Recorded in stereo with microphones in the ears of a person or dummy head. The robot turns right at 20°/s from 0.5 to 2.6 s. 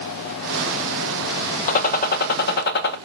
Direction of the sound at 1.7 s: 45° left (ahead or behind).